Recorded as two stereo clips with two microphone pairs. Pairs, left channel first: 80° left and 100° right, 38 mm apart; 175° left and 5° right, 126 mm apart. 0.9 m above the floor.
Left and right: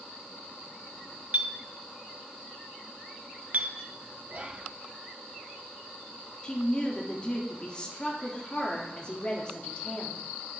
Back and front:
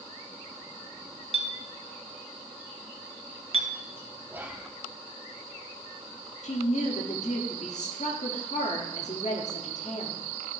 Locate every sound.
1.3 s a clink: 50° right, 0.8 m
4.3 s whispering: 75° right, 0.8 m
6.4 s a woman speaking: 145° left, 1.5 m